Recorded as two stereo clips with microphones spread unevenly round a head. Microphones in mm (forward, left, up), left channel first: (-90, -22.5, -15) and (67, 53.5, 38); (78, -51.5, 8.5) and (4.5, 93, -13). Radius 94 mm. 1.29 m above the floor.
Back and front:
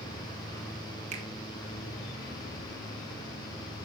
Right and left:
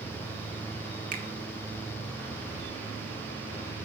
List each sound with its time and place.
1.1 s a finger snap: 80° left, 2.5 m